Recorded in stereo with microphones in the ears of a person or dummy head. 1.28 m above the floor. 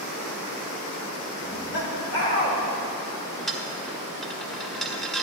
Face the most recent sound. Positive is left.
turn(degrees=0)  # may be behind; listen again after turning